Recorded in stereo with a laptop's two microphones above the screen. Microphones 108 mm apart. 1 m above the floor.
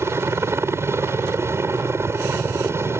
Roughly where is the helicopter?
Right.